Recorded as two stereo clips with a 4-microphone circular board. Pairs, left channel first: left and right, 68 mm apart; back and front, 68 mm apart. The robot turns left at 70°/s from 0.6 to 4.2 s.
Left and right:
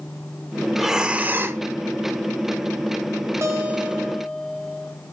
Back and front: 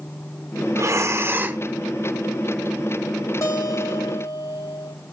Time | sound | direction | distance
0.8 | breathing | straight ahead | 0.5 m
3.4 | a guitar | 135° right | 1.5 m